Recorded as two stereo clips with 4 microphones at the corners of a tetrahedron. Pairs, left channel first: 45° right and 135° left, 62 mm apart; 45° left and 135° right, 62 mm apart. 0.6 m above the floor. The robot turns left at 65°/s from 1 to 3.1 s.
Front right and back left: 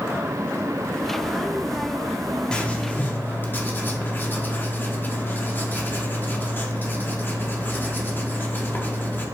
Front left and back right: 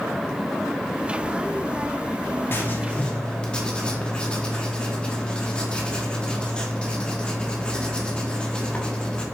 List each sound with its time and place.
2.5 s writing: 20° left, 1.1 m; by 9.2 s 20° right, 1.1 m